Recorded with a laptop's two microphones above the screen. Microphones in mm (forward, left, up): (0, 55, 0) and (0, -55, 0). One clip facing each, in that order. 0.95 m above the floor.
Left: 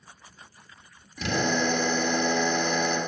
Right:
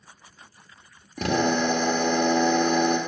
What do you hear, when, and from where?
1.2 s a drill: 50° right (ahead or behind), 1.7 m